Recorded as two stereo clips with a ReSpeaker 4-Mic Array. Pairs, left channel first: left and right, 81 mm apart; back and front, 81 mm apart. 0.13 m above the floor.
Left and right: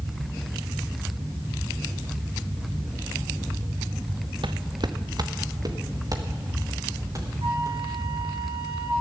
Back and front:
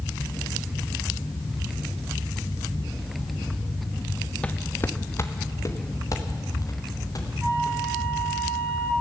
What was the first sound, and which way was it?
Footsteps, 105° right.